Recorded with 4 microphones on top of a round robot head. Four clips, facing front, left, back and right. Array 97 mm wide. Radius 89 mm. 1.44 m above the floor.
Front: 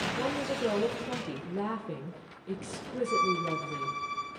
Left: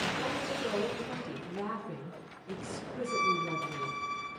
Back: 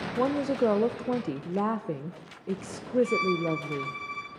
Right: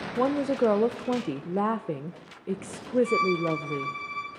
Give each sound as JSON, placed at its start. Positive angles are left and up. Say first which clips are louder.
{"t": 0.2, "sound": "a woman speaking", "louder": "right 10 dB, back 9 dB", "azimuth_deg": -120, "distance_m": 0.7}
{"t": 3.0, "sound": "a violin", "louder": "right 6 dB, back 1 dB", "azimuth_deg": -125, "distance_m": 1.2}